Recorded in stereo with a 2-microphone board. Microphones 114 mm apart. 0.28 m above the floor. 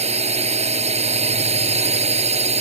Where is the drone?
70° right (ahead or behind).